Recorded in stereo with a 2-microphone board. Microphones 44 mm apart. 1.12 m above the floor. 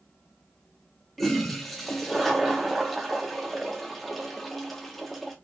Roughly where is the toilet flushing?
Centre.